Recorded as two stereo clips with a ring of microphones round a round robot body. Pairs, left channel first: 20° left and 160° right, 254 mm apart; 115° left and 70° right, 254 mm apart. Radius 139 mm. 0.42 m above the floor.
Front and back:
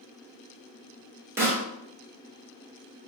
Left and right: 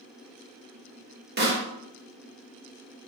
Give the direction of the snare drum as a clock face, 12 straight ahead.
3 o'clock.